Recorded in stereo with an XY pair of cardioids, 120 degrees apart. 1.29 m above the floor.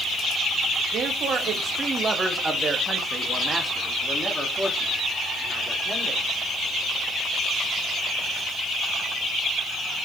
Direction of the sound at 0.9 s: 60° right.